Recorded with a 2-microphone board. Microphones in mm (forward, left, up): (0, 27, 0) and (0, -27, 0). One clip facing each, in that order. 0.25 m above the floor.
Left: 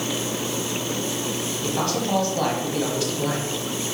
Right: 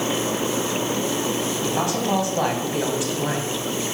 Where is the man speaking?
20° right (ahead or behind), 1.5 m.